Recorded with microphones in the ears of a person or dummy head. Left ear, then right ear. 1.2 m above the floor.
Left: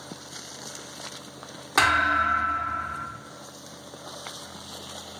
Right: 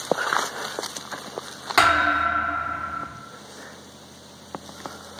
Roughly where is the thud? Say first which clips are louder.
Right 3 dB; centre.